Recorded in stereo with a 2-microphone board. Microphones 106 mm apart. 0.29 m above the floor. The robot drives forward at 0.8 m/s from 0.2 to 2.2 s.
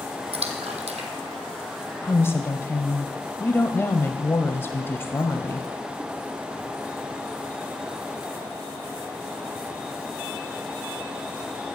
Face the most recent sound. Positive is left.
turn(degrees=20)  # may be behind; listen again after turning